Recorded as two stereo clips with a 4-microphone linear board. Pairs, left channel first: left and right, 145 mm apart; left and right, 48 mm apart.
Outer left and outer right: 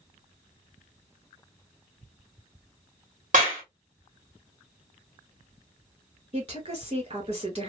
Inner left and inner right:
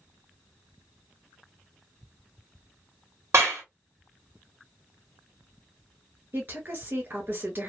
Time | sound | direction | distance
3.3 | a clap | 65° right (ahead or behind) | 2.0 m
6.3 | a woman speaking | 45° right (ahead or behind) | 1.9 m